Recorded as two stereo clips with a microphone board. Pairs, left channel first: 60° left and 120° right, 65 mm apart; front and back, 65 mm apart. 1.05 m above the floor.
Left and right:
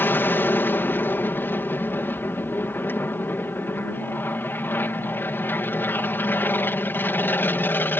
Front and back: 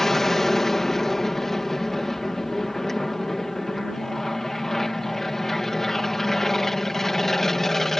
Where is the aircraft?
80° left.